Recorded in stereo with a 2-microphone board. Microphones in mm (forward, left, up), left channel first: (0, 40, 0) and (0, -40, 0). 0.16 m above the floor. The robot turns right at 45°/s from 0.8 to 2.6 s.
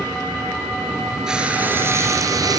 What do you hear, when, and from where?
1.3 s frying: 170° right, 3.5 m; by 2.6 s 110° right, 3.5 m